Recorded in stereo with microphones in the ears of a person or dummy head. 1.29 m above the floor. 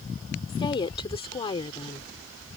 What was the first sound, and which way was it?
A woman speaking, 30° left (ahead or behind).